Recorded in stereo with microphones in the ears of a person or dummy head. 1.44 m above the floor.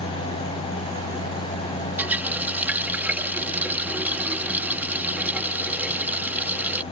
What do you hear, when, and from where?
2.0 s a running tap: 10° right (ahead or behind)